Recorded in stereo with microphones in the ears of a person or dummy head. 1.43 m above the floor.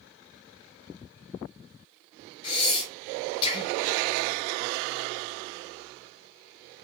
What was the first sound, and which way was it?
Breathing, 35° left (ahead or behind).